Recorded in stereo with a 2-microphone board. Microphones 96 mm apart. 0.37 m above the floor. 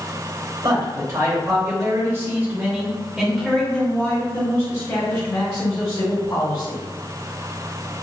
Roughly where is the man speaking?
Right.